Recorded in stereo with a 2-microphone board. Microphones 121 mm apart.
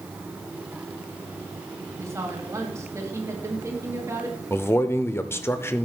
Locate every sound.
2.0 s a woman speaking: 25° right (ahead or behind), 3.5 m
4.5 s a man speaking: 20° left (ahead or behind), 0.9 m